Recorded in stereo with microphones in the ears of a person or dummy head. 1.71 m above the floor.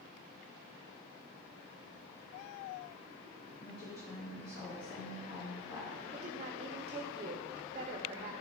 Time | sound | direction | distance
3.6 | a woman speaking | 50° left (ahead or behind) | 3 m
6.1 | a woman speaking | 30° right (ahead or behind) | 0.7 m